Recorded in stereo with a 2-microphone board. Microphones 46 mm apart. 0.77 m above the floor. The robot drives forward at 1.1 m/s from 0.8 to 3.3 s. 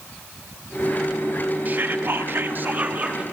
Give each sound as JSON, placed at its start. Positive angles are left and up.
{"t": 1.6, "sound": "whispering", "side_deg": -40, "distance_m": 1.0}